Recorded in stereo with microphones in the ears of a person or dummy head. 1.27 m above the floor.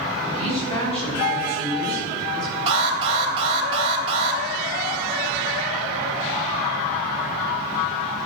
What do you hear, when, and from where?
0.2 s a woman speaking: 25° left (ahead or behind), 5.5 m; by 2.6 s 45° left (ahead or behind), 8 m
2.7 s an alarm: 30° right (ahead or behind), 3 m